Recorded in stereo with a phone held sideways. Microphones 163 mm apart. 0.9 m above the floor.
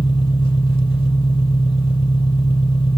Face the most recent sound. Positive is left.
turn(degrees=35)  # may be behind; listen again after turning